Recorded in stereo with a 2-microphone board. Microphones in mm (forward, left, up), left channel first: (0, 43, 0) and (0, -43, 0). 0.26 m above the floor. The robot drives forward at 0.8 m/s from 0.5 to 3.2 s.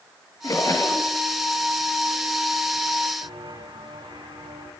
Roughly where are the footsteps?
Right.